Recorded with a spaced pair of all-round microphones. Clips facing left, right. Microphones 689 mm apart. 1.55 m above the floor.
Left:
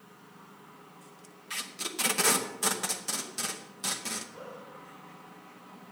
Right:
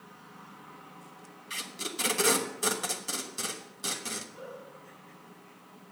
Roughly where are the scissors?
No scissors in this recording.